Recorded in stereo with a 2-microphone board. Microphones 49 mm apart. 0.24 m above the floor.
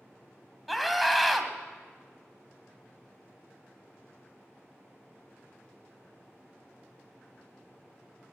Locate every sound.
0.7 s a scream: centre (ahead or behind), 1.5 m